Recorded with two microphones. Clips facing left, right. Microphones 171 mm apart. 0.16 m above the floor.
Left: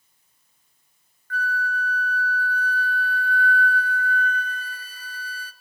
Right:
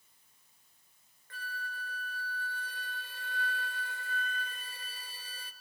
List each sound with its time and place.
1.3 s a flute: 25° right (ahead or behind), 0.5 m